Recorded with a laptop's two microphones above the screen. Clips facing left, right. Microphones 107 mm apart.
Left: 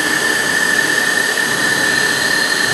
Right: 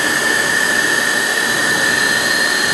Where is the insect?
25° right (ahead or behind), 0.8 m.